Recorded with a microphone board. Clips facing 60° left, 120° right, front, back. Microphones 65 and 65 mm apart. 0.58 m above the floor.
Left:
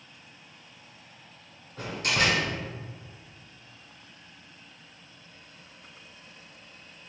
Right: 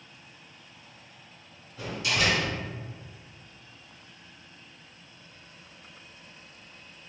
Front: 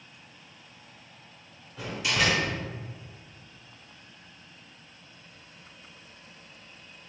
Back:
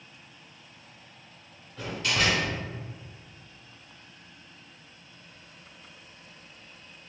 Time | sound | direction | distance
1.8 | a door slam | 80° left | 1.1 m